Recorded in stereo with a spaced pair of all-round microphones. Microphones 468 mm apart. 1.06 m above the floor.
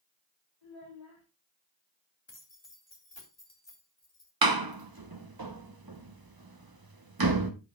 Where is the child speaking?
65° left (ahead or behind), 3 m.